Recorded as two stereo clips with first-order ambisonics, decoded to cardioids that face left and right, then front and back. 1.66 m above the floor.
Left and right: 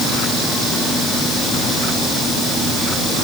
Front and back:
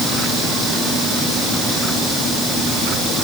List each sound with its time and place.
Only background noise.